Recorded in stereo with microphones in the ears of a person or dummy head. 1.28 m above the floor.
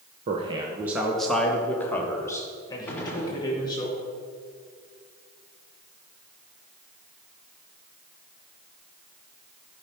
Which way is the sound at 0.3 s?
35° right (ahead or behind).